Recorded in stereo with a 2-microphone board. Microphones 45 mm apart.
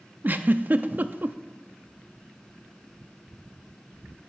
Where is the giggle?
40° right (ahead or behind), 0.5 m.